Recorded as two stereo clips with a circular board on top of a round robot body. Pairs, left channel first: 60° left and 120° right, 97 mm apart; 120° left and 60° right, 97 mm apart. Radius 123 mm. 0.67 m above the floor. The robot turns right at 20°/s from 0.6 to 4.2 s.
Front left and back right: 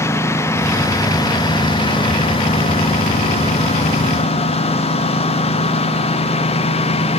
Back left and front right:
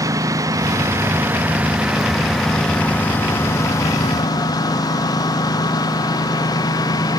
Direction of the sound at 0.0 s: 5° right.